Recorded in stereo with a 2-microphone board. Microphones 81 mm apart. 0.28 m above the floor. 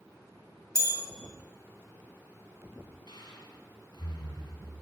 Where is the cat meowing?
I don't hear a cat meowing.